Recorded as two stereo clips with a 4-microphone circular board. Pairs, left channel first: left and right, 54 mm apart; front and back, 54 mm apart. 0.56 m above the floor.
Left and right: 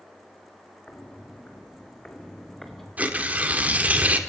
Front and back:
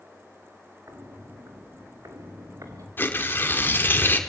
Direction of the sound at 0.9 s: 155° left.